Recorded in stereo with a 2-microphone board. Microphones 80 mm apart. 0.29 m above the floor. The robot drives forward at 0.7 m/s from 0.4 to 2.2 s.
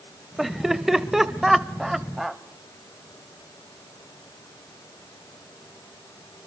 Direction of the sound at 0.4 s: Centre (ahead or behind).